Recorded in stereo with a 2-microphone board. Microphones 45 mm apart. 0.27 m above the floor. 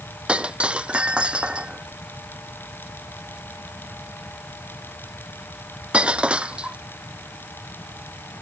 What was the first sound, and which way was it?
Breaking glass, 25° right (ahead or behind).